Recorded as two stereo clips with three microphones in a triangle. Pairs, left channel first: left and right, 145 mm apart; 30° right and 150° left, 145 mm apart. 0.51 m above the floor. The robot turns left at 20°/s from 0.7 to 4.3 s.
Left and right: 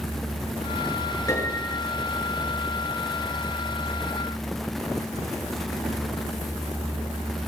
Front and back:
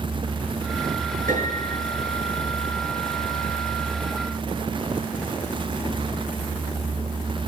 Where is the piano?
160° left, 7 m; by 1.8 s 145° left, 7 m.